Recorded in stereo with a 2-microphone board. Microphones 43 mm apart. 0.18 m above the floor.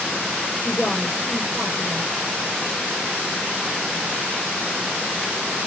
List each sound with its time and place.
0.6 s a woman speaking: 20° left (ahead or behind), 4.5 m